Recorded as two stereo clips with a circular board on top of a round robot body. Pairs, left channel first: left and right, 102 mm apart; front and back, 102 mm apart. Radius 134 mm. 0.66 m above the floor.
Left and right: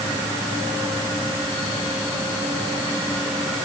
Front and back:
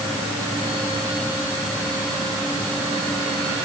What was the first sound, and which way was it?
Only background noise.